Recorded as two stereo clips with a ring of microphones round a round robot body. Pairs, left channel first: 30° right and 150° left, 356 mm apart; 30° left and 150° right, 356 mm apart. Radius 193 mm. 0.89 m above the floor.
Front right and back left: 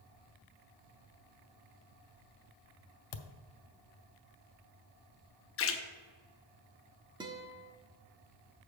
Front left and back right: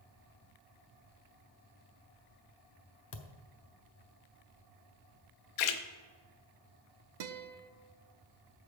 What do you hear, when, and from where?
3.1 s a thud: 20° right, 0.6 m
5.6 s a splash: 25° left, 0.8 m
7.2 s a guitar: 130° right, 0.7 m